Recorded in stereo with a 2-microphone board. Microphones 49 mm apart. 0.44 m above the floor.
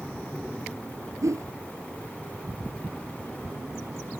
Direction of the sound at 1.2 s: 80° right.